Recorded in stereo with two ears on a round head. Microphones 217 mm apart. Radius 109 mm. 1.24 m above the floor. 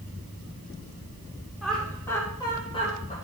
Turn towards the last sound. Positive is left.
turn(degrees=35)  # may be behind; listen again after turning